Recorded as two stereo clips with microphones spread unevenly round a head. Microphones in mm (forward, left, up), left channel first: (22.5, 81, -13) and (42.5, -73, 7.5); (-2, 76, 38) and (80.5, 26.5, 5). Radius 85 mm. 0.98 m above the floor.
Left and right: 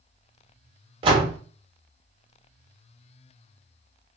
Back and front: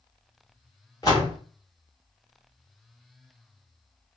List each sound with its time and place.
1.0 s a door slam: 145° right, 0.7 m